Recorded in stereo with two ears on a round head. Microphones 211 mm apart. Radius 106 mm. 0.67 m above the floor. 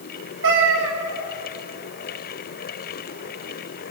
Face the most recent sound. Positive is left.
turn(degrees=-60)  # may be behind; listen again after turning